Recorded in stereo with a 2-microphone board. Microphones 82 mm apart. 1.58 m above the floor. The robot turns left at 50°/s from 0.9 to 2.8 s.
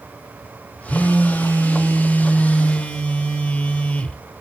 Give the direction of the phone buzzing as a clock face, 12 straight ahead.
8 o'clock.